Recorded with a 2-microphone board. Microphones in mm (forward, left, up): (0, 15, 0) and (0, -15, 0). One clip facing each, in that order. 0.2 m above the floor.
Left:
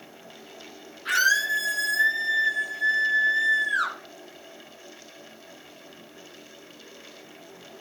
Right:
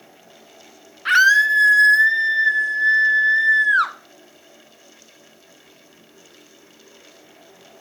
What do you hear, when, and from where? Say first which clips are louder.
1.1 s a scream: right 8 dB; 45° right (ahead or behind), 2 m